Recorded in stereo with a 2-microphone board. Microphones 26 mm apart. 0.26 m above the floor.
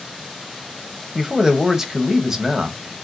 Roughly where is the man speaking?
Right.